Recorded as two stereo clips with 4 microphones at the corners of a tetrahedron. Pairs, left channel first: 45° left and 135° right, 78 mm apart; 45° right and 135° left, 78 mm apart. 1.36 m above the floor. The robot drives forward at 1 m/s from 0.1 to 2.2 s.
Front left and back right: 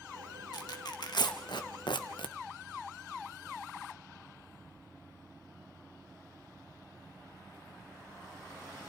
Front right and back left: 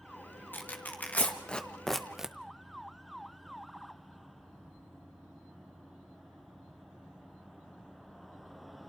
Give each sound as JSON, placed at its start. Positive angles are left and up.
{"t": 0.5, "sound": "tearing paper", "azimuth_deg": 20, "distance_m": 2.5}